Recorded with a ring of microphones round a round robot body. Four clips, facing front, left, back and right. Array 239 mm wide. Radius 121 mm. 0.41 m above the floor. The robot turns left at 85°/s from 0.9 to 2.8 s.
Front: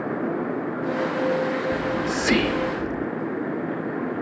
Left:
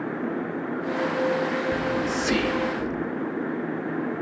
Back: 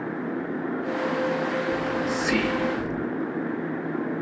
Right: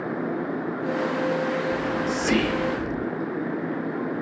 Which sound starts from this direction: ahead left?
Whispering, at 1.7 s.